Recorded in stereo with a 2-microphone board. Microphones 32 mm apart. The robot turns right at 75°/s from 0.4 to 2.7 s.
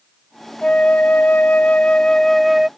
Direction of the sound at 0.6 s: 40° left.